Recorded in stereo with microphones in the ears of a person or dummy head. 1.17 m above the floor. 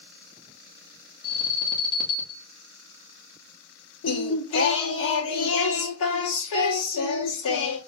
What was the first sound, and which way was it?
An alarm, 20° left (ahead or behind).